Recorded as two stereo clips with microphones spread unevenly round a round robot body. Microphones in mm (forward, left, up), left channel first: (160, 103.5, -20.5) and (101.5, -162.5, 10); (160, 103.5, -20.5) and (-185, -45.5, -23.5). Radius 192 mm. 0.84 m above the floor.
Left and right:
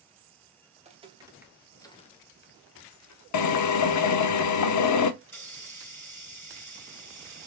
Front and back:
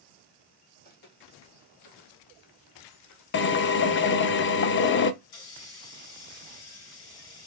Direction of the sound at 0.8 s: 45° right.